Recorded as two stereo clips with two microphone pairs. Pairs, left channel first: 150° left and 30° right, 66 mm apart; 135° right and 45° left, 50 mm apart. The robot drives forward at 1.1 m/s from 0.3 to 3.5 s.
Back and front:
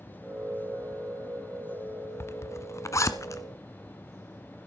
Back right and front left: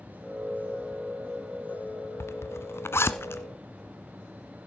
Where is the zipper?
165° right, 0.9 m; by 3.4 s 175° right, 2 m.